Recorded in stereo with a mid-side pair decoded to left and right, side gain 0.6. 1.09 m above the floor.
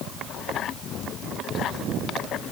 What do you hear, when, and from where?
Only background noise.